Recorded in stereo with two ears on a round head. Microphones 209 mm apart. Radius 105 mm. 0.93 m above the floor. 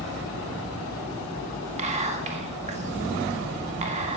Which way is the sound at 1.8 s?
30° right (ahead or behind).